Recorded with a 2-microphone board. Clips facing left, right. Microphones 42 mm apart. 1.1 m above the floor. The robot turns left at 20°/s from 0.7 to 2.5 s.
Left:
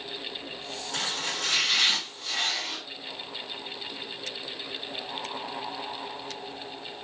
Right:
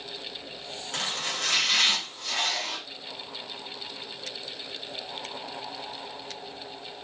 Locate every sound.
0.9 s chopping: 40° right, 3 m; by 2.8 s 75° right, 3 m